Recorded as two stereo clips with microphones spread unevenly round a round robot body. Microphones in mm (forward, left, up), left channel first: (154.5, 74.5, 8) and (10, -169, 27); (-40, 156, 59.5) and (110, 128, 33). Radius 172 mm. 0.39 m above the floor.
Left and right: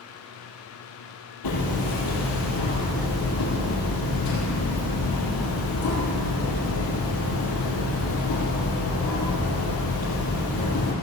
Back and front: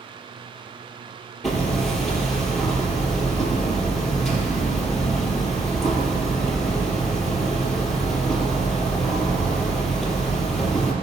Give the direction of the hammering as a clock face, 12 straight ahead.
9 o'clock.